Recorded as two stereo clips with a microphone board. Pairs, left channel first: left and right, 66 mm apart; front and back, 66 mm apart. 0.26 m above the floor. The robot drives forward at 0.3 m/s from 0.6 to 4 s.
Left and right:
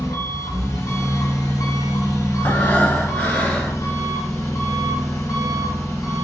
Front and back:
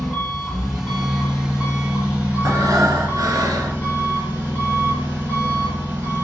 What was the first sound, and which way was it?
An engine running, 95° left.